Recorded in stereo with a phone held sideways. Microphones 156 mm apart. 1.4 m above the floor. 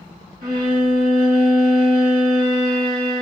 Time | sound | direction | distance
0.4 | a violin | 75° right (ahead or behind) | 1.2 m